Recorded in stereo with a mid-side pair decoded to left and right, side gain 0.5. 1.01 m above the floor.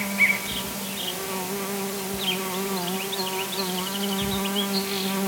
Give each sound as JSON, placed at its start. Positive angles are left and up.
{"t": 0.0, "sound": "an insect", "azimuth_deg": 0}